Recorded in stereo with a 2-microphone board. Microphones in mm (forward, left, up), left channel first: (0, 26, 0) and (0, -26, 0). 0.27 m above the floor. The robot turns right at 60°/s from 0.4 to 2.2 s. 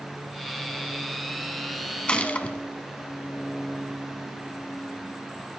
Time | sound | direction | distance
2.1 | a gunshot | 20° left (ahead or behind) | 1.2 m